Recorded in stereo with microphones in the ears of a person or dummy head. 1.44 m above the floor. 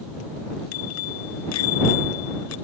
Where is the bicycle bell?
80° left.